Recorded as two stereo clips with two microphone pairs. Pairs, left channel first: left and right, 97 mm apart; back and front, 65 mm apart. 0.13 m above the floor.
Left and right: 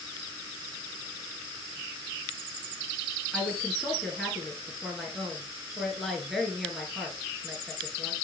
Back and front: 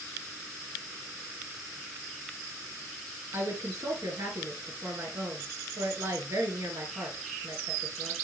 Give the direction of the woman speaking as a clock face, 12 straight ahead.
12 o'clock.